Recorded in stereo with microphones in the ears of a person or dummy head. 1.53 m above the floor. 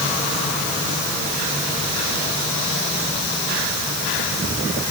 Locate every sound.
Only background noise.